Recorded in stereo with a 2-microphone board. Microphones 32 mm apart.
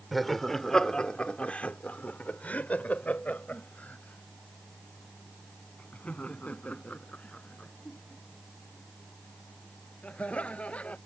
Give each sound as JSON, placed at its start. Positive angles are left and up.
{"t": 0.1, "sound": "laughter", "side_deg": 5}